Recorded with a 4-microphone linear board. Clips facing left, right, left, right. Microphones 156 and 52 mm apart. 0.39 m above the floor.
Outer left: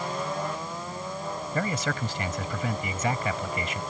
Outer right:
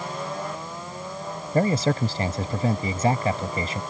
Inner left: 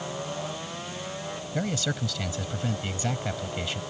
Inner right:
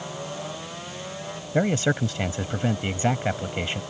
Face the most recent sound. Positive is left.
turn(degrees=-35)  # may be behind; listen again after turning